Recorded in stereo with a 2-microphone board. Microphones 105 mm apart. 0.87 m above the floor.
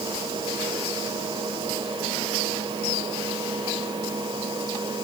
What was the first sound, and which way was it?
Only background noise.